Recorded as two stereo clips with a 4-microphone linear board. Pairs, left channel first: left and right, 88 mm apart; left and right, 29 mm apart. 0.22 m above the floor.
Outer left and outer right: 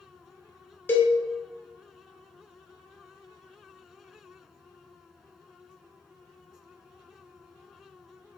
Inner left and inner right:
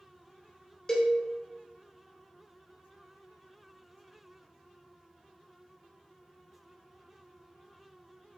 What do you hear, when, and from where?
0.9 s a cowbell: 20° left (ahead or behind), 1.1 m